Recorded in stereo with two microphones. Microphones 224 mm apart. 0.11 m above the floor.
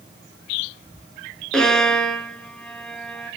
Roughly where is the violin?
Centre.